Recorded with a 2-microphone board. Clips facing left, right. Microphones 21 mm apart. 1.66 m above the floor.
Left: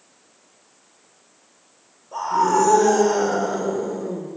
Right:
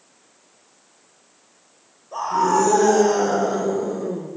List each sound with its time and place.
2.1 s a scream: 15° left (ahead or behind), 6 m